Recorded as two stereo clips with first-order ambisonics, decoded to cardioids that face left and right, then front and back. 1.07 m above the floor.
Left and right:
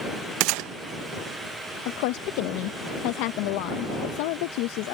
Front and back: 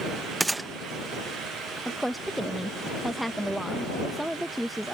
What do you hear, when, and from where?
0.4 s a gunshot: 100° right
1.9 s a woman speaking: 95° left